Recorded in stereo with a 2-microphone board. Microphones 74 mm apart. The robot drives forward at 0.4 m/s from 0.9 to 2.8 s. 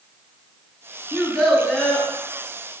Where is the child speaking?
10° left (ahead or behind), 1.3 m; by 2.1 s 5° left (ahead or behind), 1.7 m.